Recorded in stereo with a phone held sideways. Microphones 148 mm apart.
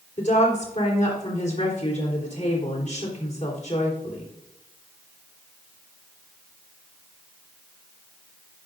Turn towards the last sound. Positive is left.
turn(degrees=55)  # may be behind; listen again after turning